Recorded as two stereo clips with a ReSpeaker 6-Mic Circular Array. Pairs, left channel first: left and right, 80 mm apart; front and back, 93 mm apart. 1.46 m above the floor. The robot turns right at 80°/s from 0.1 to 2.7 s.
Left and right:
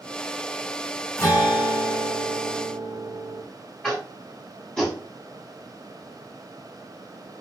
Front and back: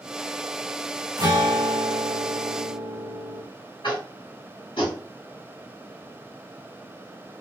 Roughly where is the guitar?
Behind left.